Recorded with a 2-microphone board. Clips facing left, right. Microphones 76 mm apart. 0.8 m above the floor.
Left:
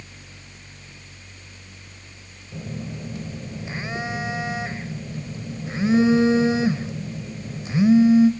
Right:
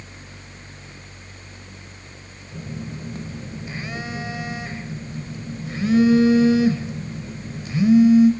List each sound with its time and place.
2.5 s a phone buzzing: 25° left (ahead or behind), 1.5 m